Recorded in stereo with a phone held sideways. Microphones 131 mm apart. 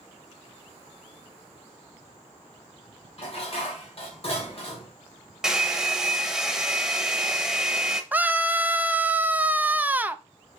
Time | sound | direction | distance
3.2 | dishes clattering | 50° left (ahead or behind) | 2.5 m
5.4 | a hair dryer | 5° right (ahead or behind) | 1.0 m
8.1 | a scream | 15° right (ahead or behind) | 0.5 m